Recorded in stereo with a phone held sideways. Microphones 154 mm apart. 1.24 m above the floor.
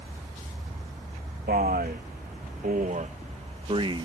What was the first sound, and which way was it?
A man speaking, 75° right (ahead or behind).